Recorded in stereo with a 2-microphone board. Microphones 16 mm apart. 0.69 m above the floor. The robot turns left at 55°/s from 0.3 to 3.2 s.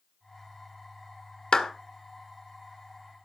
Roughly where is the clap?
Left.